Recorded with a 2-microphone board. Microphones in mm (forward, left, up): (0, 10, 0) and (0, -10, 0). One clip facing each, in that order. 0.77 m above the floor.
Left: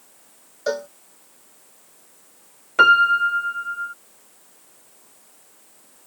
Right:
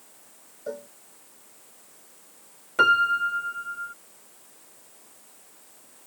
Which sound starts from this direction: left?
A cowbell, at 0.7 s.